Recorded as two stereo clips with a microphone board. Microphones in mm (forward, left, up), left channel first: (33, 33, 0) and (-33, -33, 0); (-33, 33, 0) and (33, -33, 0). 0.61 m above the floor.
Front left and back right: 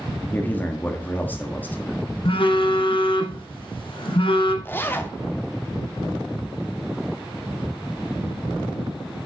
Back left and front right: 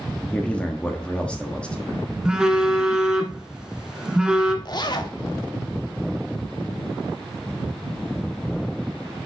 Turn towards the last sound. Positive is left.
turn(degrees=105)